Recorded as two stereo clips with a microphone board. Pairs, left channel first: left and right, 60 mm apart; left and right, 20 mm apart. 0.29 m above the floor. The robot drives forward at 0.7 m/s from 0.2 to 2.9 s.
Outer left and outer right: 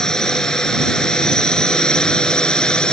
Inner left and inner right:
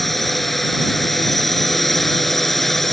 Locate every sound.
0.0 s a drone: 10° left (ahead or behind)